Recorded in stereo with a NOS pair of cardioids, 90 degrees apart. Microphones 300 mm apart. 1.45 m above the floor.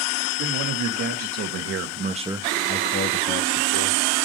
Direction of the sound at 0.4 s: 70° right.